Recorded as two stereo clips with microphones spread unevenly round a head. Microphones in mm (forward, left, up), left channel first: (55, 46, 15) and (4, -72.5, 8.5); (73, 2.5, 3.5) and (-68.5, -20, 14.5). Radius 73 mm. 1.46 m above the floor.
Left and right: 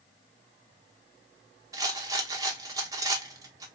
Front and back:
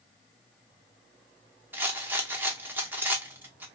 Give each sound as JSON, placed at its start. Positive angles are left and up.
{"t": 1.7, "sound": "a rattle", "azimuth_deg": -130, "distance_m": 0.7}